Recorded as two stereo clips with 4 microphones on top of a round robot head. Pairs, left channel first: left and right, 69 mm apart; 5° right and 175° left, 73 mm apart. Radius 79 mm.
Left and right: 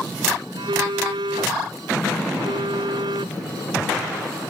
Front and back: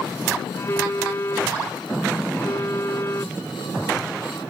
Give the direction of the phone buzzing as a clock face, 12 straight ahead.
2 o'clock.